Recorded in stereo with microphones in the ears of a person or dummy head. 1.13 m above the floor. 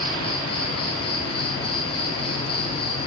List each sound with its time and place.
0.0 s an insect: 25° left (ahead or behind), 1.1 m